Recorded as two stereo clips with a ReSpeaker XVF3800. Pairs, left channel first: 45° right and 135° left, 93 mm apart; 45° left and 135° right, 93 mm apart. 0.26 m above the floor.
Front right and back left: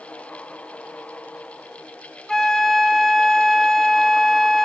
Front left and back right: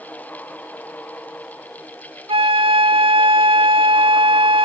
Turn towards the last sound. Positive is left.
turn(degrees=-130)